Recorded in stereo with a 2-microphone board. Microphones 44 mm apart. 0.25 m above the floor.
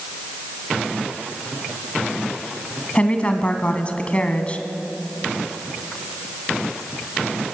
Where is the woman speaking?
30° left (ahead or behind), 2 m.